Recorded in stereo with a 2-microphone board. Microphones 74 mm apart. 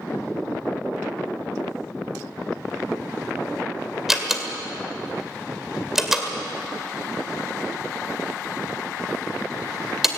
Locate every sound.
4.1 s a door slam: 5° right (ahead or behind), 2 m